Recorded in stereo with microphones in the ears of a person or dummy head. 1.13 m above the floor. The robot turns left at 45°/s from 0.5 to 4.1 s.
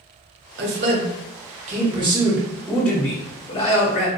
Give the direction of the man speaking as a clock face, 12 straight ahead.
3 o'clock.